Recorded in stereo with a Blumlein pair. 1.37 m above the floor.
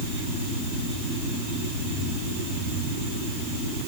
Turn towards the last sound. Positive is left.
No sound to turn to.